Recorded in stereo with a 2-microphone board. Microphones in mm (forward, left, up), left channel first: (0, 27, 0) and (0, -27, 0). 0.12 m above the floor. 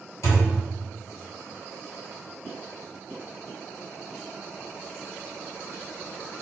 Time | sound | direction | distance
0.2 | a thud | 65° left (ahead or behind) | 1.8 m